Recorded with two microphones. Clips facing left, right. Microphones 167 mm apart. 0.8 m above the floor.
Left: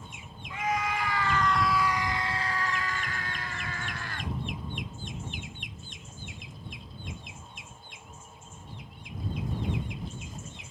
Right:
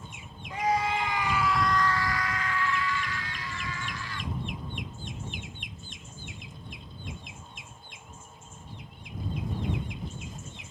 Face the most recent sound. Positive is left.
turn(degrees=65)  # may be behind; listen again after turning